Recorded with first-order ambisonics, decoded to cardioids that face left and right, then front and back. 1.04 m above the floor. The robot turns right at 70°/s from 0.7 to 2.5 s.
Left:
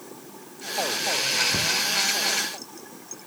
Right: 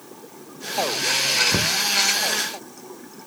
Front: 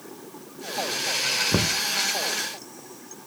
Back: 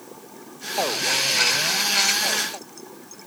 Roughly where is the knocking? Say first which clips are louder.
Right 2 dB, back 2 dB; ahead right.